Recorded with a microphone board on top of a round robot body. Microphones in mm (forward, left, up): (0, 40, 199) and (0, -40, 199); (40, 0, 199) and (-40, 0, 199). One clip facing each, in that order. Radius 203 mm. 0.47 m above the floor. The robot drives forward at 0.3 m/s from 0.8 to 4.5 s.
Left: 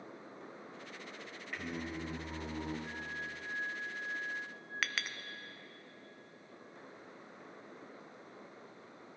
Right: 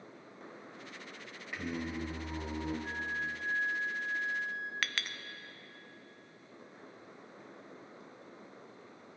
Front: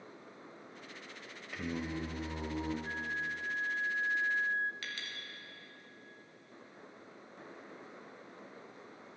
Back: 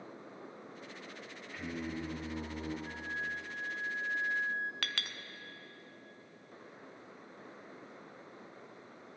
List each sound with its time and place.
1.5 s singing: 5° right, 2 m; by 2.7 s 10° right, 1.7 m
2.8 s a flute: 45° right, 1.3 m; by 4.7 s 65° right, 1.0 m
4.8 s a clink: 175° left, 0.7 m